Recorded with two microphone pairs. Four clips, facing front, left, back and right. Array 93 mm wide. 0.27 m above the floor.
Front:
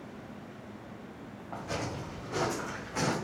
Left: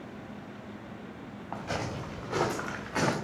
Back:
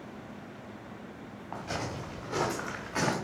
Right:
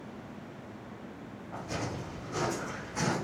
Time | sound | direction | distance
1.5 | footsteps | 120° left | 3 m